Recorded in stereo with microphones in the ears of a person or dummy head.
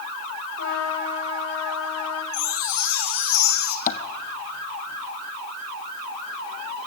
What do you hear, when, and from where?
0.6 s a trumpet: 85° left, 6 m
2.3 s a chime: 90° left, 3 m
3.9 s tapping: 40° left (ahead or behind), 1.5 m